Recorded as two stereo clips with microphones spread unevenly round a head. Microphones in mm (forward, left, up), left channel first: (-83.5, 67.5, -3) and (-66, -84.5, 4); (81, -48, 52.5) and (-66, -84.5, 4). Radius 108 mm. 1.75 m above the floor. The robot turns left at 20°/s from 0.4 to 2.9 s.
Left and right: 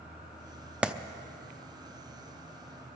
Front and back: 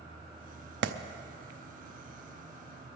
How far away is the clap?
About 0.7 m.